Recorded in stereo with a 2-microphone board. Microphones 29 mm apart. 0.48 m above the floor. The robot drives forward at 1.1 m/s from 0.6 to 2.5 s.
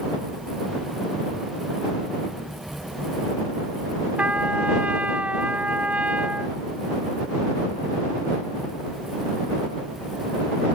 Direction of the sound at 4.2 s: 55° right (ahead or behind).